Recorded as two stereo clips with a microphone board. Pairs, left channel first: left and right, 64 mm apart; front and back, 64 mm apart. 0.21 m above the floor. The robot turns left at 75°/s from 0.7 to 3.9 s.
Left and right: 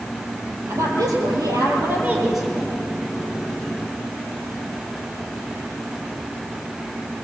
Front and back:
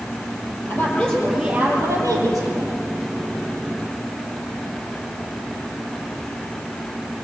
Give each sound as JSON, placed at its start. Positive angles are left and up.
{"t": 0.7, "sound": "a woman speaking", "azimuth_deg": -50, "distance_m": 7.0}